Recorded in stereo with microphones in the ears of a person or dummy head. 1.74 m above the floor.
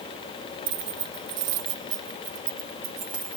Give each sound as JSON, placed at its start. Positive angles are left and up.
{"t": 0.7, "sound": "keys jangling", "side_deg": -55, "distance_m": 1.5}